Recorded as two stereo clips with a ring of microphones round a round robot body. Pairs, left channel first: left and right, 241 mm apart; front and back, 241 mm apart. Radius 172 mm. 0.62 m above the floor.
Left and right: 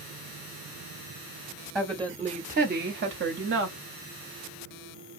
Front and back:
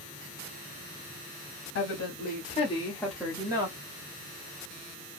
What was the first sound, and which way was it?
A woman speaking, 15° right.